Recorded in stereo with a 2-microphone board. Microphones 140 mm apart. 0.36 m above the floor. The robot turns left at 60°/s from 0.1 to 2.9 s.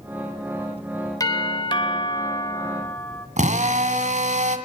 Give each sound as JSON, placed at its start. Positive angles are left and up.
{"t": 1.2, "sound": "a doorbell", "azimuth_deg": 130, "distance_m": 2.5}
{"t": 3.4, "sound": "a drill", "side_deg": -65, "distance_m": 2.0}